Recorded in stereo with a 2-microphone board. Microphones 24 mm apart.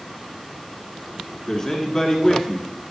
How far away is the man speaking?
About 1.3 m.